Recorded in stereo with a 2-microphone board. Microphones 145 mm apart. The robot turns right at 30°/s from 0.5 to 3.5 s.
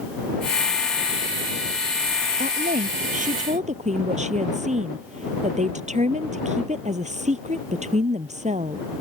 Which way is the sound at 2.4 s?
90° right.